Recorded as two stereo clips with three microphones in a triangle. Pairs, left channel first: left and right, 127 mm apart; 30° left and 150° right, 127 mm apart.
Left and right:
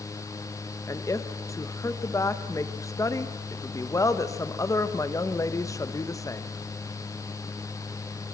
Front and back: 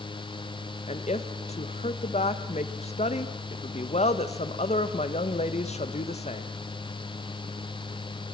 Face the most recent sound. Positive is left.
turn(degrees=30)